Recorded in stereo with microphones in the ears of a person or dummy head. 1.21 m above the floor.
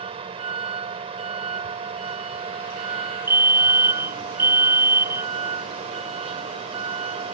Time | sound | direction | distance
0.0 | a vehicle | 35° right (ahead or behind) | ?
3.3 | a fire alarm | 15° right (ahead or behind) | ?